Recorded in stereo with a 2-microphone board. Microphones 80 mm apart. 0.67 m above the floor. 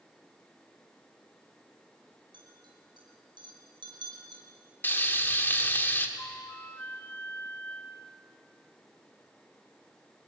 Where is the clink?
90° right, 6 m.